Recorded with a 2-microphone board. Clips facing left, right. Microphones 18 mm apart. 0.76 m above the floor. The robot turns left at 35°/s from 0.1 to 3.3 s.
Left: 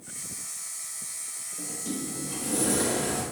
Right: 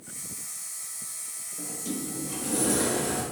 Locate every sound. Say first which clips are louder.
1.6 s a sliding door: even; 15° right (ahead or behind), 1.0 m; by 3.2 s 5° left (ahead or behind), 1.0 m